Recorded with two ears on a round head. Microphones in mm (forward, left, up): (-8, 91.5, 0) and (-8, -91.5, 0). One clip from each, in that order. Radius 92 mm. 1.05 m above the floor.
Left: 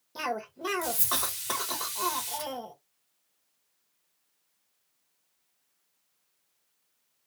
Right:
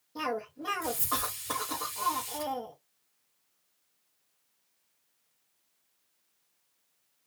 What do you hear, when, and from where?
0.1 s a cough: 60° left (ahead or behind), 1.4 m